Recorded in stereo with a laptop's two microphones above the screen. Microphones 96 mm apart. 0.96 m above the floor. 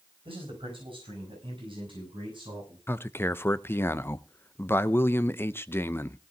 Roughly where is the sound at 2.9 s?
Left.